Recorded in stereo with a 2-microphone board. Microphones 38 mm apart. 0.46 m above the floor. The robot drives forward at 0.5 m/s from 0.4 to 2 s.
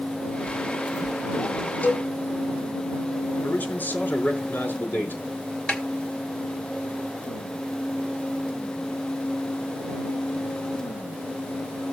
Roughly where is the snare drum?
Left.